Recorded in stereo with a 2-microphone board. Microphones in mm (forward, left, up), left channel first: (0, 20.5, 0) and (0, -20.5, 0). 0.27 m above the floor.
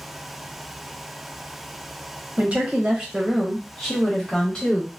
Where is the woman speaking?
35° right (ahead or behind), 1.1 m; by 4.9 s 20° left (ahead or behind), 1.4 m.